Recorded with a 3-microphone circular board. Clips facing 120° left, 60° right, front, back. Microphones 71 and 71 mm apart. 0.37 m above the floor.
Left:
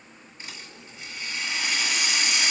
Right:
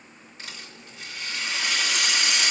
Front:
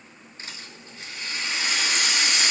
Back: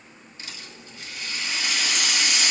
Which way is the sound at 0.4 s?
55° right.